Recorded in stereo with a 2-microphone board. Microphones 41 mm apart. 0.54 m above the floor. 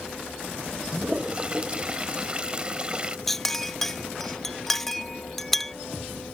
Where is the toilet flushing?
25° right (ahead or behind).